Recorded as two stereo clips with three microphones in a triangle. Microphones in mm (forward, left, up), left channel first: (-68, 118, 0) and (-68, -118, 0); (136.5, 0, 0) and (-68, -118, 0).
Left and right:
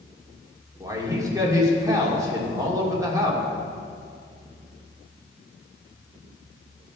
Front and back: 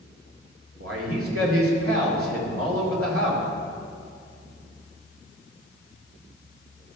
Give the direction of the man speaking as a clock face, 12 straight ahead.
6 o'clock.